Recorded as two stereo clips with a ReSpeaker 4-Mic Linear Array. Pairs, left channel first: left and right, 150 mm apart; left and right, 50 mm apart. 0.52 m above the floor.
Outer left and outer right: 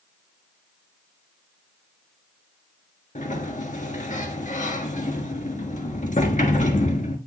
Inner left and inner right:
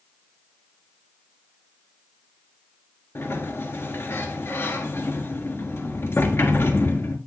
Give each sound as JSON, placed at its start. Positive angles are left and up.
{"t": 3.1, "sound": "a sliding door", "side_deg": 60, "distance_m": 1.4}